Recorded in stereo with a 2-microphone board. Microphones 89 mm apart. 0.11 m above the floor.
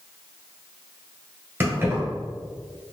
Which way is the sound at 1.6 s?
25° right (ahead or behind).